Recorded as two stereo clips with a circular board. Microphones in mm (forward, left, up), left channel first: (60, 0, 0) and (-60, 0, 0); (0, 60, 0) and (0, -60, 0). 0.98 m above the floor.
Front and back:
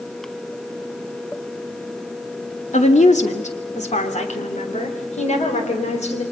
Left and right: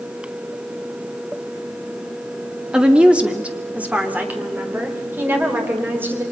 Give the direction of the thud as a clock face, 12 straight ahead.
No thud in this recording.